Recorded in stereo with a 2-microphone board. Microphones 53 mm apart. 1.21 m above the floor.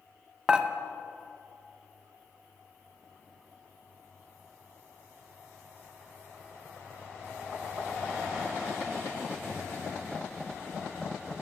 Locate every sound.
0.5 s dishes clattering: 20° right (ahead or behind), 0.5 m